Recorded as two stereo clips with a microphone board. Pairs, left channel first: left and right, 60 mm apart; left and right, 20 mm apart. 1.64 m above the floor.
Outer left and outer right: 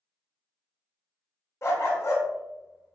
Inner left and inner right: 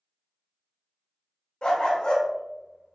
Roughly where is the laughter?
No laughter in this recording.